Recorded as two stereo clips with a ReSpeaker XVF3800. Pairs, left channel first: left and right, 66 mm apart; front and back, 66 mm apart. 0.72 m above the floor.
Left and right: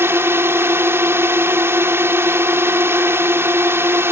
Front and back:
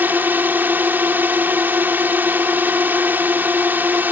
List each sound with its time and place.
0.0 s a drone: 125° right